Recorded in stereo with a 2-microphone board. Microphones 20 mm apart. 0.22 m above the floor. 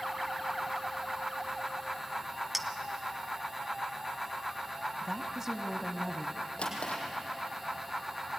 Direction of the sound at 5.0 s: 25° right (ahead or behind).